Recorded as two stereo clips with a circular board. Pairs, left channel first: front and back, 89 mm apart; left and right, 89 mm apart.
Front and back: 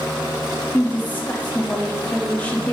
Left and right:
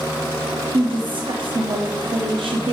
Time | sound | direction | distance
0.7 | a woman speaking | 70° right | 0.8 m